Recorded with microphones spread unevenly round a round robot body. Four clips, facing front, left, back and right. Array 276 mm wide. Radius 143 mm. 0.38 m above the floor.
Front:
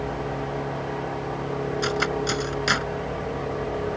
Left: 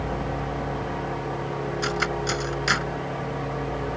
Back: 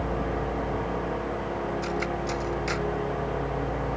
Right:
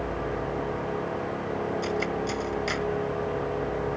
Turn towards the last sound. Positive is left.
turn(degrees=35)